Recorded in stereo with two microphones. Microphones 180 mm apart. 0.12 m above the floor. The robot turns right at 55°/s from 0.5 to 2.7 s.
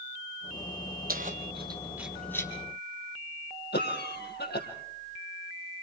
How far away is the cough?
About 5.5 m.